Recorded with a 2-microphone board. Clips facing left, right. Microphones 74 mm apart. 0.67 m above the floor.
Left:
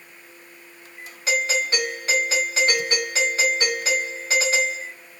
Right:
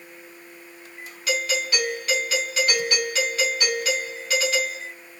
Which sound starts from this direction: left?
A doorbell, at 1.3 s.